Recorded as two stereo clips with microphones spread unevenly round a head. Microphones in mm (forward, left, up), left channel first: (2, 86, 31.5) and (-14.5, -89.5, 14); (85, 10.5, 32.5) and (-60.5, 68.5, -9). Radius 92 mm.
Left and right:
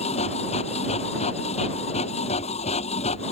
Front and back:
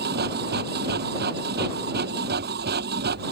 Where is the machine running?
140° left.